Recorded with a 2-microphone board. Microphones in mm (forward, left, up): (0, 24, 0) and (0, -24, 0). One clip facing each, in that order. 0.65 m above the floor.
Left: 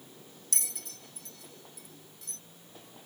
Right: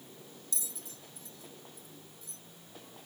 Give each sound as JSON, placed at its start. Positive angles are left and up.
{"t": 0.5, "sound": "a bell", "side_deg": 65}